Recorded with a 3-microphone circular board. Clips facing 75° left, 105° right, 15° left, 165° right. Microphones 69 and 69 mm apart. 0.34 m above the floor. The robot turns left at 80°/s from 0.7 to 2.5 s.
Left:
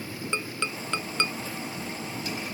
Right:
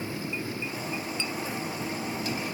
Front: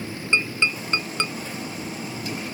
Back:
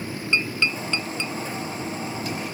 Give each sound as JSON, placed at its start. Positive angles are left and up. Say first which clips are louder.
{"t": 0.3, "sound": "tapping", "louder": "left 1 dB, front 1 dB", "azimuth_deg": 85}